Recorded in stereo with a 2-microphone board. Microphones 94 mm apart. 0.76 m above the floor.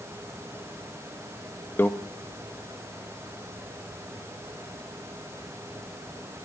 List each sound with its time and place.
1.8 s a microwave: 20° left (ahead or behind), 0.6 m